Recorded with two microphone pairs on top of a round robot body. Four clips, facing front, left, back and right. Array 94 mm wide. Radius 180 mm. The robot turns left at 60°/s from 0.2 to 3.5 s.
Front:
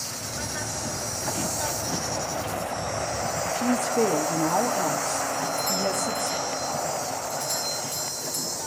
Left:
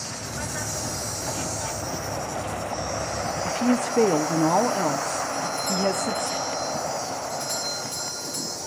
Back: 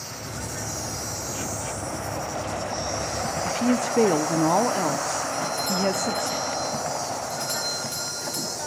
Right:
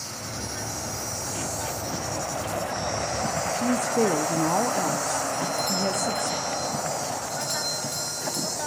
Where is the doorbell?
155° right, 3 m.